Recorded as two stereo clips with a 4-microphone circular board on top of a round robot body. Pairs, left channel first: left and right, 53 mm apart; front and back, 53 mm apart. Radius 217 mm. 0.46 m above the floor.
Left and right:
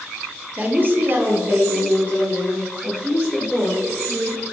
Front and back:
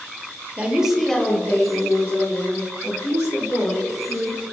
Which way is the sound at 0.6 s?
135° right.